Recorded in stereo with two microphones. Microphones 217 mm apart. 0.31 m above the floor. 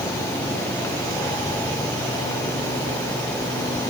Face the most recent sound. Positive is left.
No sound to turn to.